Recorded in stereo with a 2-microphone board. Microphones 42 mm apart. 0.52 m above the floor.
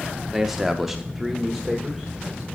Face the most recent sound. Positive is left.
turn(degrees=0)  # may be behind; listen again after turning